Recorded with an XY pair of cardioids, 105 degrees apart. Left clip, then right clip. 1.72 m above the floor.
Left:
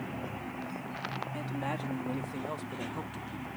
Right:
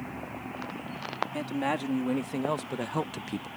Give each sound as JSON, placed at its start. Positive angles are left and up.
{"t": 1.3, "sound": "a man speaking", "azimuth_deg": -40}